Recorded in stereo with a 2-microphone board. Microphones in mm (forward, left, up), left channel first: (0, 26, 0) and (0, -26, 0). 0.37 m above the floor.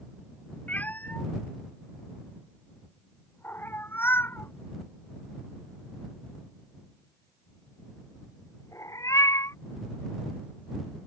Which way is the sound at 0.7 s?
30° left (ahead or behind).